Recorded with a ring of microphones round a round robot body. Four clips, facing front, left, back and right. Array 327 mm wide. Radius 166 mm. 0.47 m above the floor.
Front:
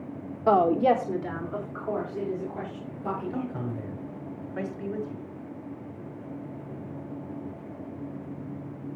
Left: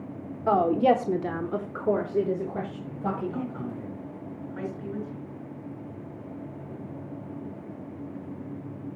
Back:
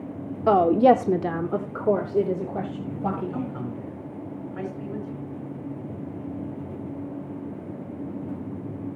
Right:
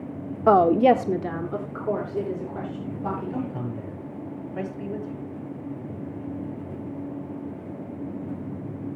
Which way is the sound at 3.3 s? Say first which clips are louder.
Right 3 dB, back 1 dB; 55° right.